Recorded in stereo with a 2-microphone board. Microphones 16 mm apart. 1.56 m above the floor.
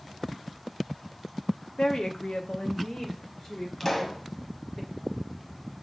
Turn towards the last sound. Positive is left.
turn(degrees=20)  # may be behind; listen again after turning